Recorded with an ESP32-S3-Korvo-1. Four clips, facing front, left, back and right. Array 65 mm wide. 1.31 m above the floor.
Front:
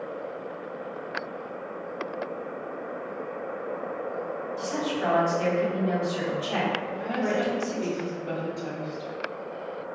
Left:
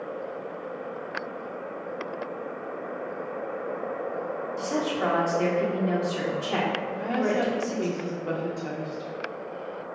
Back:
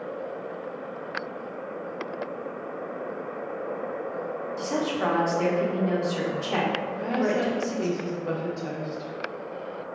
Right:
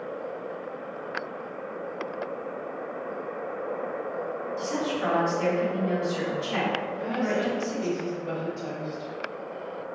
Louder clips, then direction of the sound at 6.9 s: Left 2 dB, back 2 dB; 130° left.